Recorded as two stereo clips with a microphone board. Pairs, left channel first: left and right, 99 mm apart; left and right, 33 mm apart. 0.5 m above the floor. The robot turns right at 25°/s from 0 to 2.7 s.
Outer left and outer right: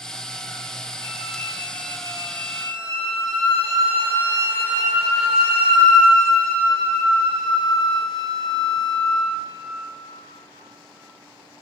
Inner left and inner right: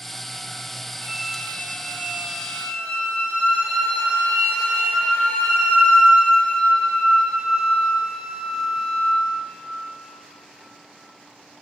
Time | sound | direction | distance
1.0 | a flute | 50° left | 3 m